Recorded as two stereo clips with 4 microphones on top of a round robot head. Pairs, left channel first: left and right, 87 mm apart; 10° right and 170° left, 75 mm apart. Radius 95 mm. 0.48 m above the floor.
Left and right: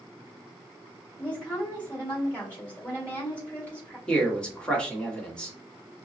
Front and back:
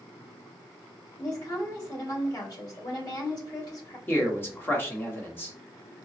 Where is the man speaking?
20° left, 1.3 m.